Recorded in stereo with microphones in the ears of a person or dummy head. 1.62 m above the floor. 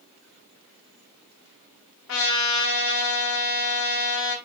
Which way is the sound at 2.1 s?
75° left (ahead or behind).